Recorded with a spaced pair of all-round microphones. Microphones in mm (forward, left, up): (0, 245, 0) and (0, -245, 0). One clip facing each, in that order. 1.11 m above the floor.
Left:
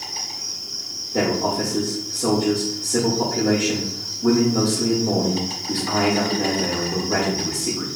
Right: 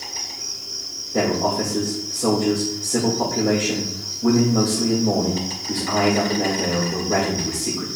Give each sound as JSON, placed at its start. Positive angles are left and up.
{"t": 0.0, "sound": "an insect", "side_deg": 10, "distance_m": 2.5}
{"t": 1.1, "sound": "a man speaking", "side_deg": 0, "distance_m": 2.0}